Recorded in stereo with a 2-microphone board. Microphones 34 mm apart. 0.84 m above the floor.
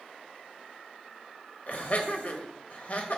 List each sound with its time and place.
1.7 s laughter: 45° left (ahead or behind), 1.3 m